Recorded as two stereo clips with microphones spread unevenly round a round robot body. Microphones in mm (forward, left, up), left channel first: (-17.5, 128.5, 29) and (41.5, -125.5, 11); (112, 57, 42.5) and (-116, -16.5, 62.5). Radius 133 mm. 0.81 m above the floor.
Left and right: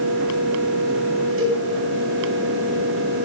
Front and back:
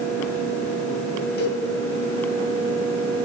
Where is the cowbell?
35° right, 3.5 m.